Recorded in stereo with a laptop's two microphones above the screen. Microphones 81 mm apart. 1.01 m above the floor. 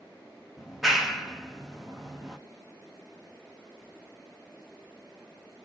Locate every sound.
0.6 s a clap: 5° right (ahead or behind), 0.8 m